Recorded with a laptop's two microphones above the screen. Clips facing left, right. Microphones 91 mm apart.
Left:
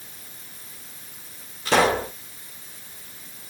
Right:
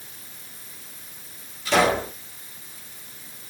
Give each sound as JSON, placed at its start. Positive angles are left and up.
{"t": 1.6, "sound": "a pop", "side_deg": 45, "distance_m": 3.5}